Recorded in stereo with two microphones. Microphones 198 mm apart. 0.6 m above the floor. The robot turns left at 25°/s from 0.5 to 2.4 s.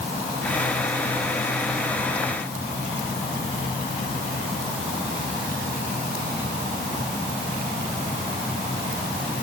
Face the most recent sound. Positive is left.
No sound to turn to.